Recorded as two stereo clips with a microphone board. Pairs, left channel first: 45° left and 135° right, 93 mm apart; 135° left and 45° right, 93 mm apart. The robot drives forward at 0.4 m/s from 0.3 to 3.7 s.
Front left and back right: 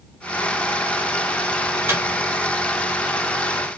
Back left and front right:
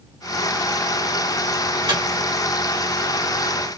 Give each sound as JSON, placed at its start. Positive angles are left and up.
{"t": 1.9, "sound": "a microwave", "azimuth_deg": -75, "distance_m": 2.0}